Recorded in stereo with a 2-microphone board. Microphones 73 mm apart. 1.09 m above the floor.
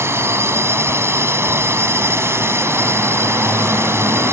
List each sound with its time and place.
0.0 s a drone: 40° right (ahead or behind)